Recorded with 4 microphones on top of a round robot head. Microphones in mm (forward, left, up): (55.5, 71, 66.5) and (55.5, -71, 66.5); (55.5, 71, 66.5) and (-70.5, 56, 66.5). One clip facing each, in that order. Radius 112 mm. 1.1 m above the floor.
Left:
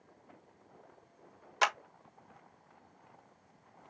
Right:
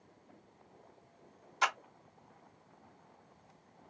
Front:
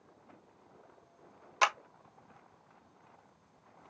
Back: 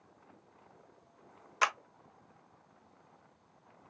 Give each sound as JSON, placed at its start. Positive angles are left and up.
{"t": 1.6, "sound": "a clap", "azimuth_deg": 70, "distance_m": 1.4}